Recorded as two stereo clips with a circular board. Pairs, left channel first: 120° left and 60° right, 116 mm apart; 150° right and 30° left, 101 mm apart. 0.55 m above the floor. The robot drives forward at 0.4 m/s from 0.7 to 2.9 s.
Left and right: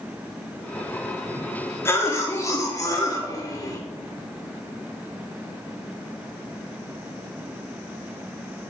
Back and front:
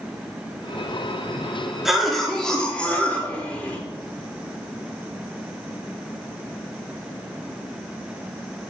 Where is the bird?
I don't hear a bird.